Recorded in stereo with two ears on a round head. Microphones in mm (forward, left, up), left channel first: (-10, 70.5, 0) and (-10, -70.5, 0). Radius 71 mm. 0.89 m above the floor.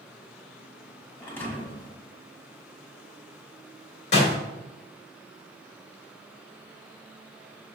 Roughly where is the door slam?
Left.